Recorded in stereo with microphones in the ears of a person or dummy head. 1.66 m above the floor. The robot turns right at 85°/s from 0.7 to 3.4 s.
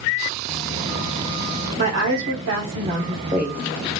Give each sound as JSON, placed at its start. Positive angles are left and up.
{"t": 1.8, "sound": "a woman speaking", "azimuth_deg": -145, "distance_m": 1.0}